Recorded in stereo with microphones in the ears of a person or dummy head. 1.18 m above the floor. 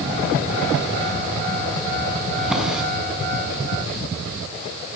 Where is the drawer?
5° right (ahead or behind), 6.5 m.